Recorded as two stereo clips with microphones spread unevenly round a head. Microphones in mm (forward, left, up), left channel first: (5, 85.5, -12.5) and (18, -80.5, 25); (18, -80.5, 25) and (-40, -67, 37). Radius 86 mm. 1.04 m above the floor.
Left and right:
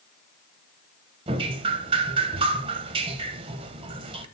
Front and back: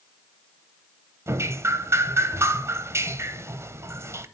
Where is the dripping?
150° right, 0.7 m.